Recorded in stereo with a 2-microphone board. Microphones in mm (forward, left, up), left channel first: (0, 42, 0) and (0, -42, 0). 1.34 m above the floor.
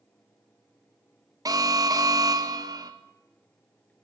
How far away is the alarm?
About 1.7 m.